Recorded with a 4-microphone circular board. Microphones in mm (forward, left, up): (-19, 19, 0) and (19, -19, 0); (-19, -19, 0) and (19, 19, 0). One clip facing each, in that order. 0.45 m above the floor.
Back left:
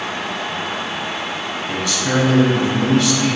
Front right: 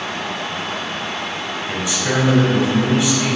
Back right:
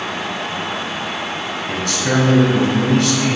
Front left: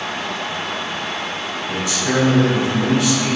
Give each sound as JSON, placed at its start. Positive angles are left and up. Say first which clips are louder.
{"t": 1.7, "sound": "a man speaking", "louder": "back left 1 dB, back right 1 dB", "azimuth_deg": -110, "distance_m": 2.5}